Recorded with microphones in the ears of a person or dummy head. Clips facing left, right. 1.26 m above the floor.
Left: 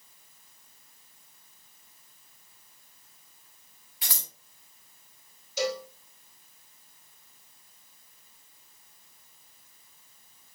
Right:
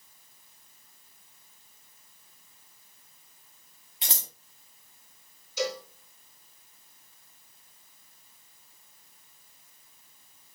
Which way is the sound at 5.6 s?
65° left (ahead or behind).